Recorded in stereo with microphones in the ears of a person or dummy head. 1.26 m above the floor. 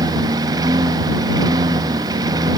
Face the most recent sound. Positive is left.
turn(degrees=-20)  # may be behind; listen again after turning